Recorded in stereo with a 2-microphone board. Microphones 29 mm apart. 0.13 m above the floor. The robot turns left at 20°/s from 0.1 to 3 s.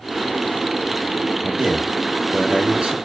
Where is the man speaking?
110° right, 2 m; by 3.0 s 140° right, 2 m.